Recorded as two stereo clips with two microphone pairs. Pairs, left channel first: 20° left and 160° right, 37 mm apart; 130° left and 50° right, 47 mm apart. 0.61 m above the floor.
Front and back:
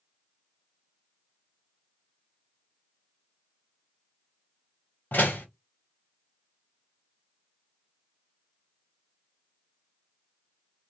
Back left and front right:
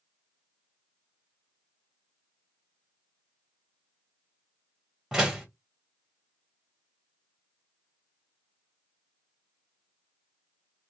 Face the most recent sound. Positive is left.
turn(degrees=35)